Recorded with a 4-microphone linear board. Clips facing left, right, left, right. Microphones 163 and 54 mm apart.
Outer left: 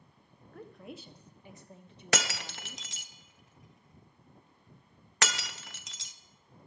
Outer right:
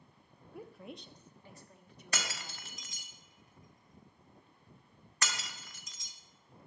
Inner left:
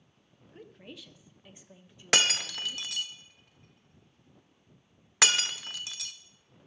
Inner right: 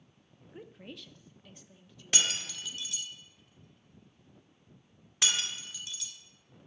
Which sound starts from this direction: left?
Breaking glass, at 2.1 s.